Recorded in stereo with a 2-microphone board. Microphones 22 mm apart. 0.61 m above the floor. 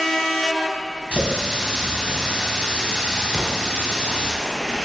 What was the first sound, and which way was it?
A running tap, 65° right (ahead or behind).